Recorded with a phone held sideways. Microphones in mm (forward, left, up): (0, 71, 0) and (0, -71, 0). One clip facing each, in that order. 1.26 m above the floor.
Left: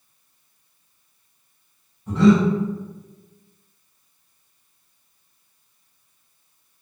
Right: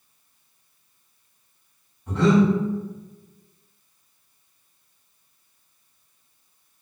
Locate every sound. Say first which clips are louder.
2.1 s breathing: left 3 dB; centre (ahead or behind), 1.4 m